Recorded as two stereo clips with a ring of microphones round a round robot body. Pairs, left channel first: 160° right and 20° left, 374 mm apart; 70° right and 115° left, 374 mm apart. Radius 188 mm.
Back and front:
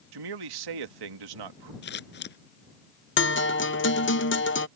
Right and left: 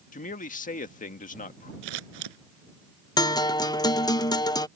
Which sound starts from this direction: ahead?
A man speaking, at 0.1 s.